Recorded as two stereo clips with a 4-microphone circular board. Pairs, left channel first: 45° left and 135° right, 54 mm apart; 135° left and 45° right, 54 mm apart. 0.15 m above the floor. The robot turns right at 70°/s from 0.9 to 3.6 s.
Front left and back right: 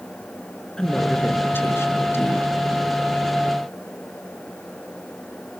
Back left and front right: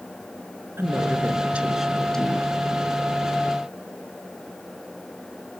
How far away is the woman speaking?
About 2 m.